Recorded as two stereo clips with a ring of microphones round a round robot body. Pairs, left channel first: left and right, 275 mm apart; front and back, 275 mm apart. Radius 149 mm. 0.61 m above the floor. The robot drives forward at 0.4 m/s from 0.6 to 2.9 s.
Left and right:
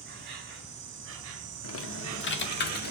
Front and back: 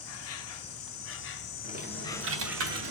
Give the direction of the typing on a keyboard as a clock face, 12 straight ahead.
8 o'clock.